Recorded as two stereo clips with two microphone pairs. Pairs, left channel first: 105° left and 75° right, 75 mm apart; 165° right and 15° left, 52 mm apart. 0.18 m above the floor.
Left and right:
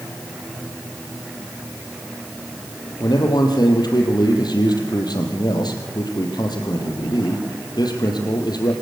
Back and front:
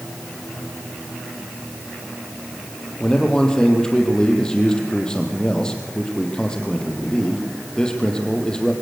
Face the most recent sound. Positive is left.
turn(degrees=120)